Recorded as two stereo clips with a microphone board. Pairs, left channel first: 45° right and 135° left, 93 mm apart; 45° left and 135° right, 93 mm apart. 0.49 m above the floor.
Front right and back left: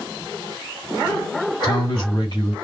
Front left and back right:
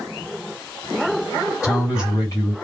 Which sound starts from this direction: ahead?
A man speaking, at 1.6 s.